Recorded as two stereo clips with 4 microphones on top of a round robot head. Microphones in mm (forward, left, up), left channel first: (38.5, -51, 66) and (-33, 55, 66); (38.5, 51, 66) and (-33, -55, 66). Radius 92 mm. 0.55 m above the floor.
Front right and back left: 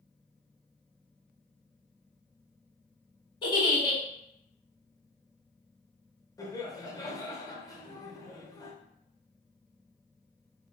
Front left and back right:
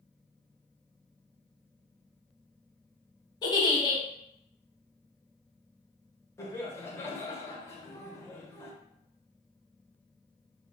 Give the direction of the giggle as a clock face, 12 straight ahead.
12 o'clock.